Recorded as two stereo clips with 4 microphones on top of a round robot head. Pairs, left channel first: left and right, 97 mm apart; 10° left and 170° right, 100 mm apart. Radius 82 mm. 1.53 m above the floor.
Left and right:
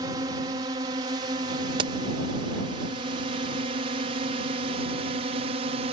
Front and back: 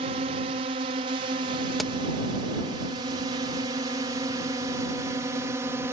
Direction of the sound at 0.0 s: 145° right.